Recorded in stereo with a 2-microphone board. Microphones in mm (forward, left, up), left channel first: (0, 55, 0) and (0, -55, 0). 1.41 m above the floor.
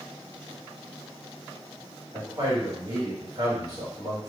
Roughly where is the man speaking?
Right.